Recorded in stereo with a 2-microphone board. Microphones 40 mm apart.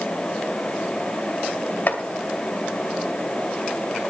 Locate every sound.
1.9 s chopping: 50° left (ahead or behind), 2.5 m